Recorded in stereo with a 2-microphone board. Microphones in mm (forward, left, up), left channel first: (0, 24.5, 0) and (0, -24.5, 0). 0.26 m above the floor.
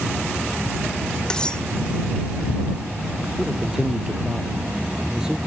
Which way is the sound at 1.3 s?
15° left (ahead or behind).